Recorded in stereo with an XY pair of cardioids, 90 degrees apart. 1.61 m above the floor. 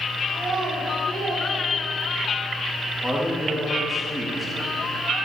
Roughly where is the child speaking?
Ahead right.